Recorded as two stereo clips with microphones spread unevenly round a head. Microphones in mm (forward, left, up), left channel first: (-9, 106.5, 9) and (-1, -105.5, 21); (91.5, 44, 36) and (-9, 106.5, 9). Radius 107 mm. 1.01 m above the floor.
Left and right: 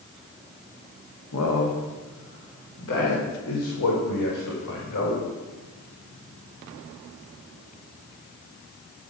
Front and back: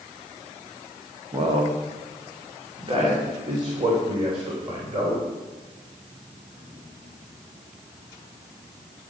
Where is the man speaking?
105° left, 1.9 m; by 5.2 s 100° left, 4.5 m.